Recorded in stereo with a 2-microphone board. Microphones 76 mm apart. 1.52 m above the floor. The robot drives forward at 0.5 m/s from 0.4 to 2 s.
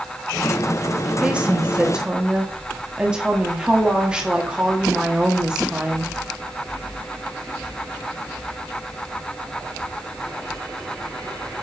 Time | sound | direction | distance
1.2 | a woman speaking | 15° right (ahead or behind) | 1.1 m